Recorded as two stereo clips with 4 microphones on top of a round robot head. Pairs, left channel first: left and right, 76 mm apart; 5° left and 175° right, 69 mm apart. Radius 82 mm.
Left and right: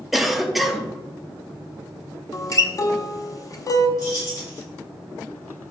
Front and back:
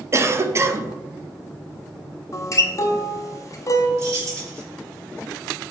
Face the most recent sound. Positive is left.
turn(degrees=140)